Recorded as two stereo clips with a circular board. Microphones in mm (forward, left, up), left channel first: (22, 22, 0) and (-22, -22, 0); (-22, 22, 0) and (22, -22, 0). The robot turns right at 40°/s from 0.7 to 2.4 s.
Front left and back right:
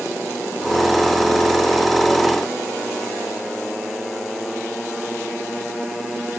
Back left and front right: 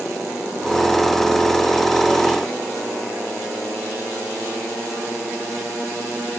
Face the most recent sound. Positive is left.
No sound to turn to.